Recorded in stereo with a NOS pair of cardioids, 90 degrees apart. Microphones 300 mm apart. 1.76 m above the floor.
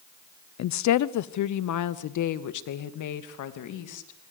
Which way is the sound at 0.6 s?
60° left.